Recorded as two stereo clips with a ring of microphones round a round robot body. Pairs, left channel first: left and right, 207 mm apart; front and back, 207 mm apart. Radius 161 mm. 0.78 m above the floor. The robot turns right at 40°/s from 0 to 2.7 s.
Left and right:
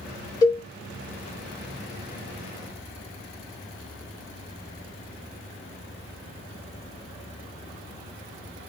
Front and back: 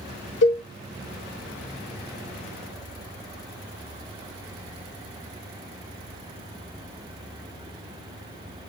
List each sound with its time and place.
0.4 s a cowbell: 15° left, 2.5 m; by 0.6 s 25° left, 2.5 m